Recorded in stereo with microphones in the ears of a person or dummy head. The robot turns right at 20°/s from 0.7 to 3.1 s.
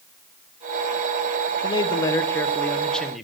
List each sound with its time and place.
1.6 s a man speaking: 30° left (ahead or behind), 0.5 m; by 3.2 s 5° left (ahead or behind), 0.5 m